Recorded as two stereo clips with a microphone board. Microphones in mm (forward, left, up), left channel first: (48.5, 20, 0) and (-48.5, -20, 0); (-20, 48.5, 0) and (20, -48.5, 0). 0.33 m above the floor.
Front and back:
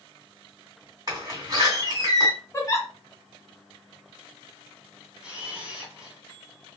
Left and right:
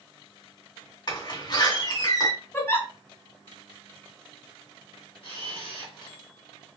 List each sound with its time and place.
1.1 s a door slam: 150° left, 2.5 m
2.5 s a giggle: 60° left, 1.7 m
5.2 s a camera shutter: 125° left, 1.9 m